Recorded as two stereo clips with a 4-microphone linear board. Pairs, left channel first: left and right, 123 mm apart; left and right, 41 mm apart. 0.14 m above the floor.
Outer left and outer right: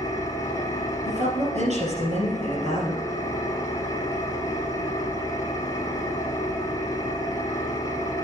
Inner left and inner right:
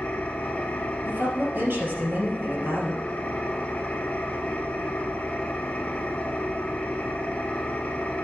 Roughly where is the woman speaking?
Right.